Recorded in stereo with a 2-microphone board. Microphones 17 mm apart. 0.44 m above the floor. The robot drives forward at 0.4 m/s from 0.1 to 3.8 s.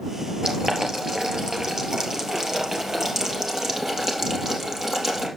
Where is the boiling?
50° right (ahead or behind), 3 m; by 5.3 s 35° right (ahead or behind), 4 m.